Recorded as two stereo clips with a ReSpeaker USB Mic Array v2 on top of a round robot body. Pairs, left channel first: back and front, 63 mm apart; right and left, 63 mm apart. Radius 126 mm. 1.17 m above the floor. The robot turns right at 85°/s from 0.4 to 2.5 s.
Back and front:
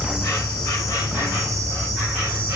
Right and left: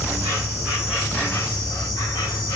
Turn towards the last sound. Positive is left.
turn(degrees=-50)